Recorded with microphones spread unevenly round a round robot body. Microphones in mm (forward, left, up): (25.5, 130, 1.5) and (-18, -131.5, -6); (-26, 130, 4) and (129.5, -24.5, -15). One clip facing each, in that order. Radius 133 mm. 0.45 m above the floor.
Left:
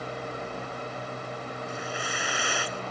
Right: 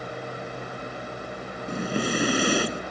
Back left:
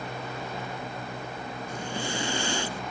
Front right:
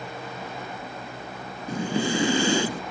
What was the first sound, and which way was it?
Breathing, 50° right.